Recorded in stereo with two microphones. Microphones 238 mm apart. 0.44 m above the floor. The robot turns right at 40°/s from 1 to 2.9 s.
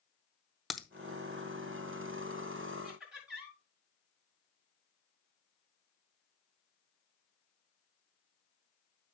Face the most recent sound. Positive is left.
turn(degrees=0)  # may be behind; listen again after turning